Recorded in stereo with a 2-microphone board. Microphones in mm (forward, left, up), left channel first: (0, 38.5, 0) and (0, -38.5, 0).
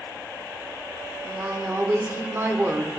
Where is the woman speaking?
35° right (ahead or behind), 0.9 m.